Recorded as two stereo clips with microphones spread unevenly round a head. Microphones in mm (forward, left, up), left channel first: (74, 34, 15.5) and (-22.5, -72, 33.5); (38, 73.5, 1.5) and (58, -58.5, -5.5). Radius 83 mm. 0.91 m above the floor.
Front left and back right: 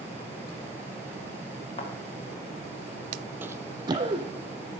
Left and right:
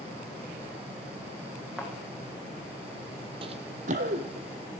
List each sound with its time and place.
1.8 s a thud: straight ahead, 6.5 m
3.4 s running footsteps: 75° right, 1.1 m; by 4.5 s 90° right, 2.5 m